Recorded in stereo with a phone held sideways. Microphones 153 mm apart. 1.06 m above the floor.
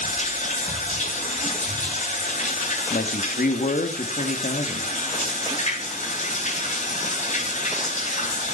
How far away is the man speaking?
About 2 m.